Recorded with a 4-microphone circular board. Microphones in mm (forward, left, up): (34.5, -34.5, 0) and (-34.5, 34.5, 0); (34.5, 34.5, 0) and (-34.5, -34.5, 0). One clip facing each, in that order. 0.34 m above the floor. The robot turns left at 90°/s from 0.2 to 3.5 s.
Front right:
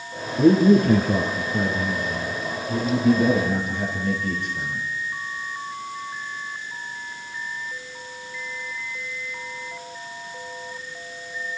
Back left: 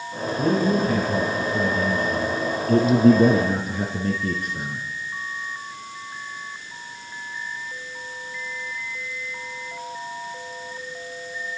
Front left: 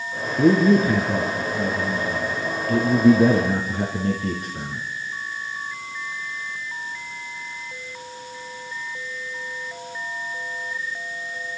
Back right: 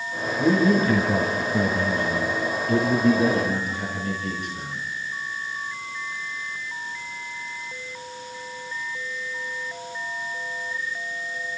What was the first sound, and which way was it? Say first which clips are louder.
A man speaking: front right 6 dB, front left 4 dB; 15° left.